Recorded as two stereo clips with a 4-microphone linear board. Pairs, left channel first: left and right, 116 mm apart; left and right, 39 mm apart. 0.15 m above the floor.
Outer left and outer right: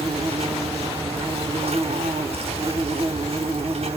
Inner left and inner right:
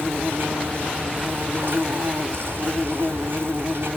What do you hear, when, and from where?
0.0 s an insect: 65° right (ahead or behind), 1.1 m